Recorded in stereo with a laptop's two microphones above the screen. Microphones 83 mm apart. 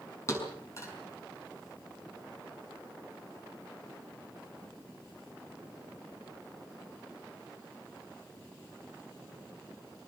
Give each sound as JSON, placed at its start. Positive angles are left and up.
{"t": 0.3, "sound": "a thud", "side_deg": 35, "distance_m": 5.5}